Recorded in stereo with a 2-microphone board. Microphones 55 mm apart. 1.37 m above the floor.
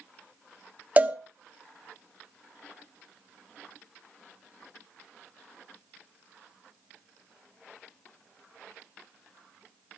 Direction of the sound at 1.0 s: 30° right (ahead or behind).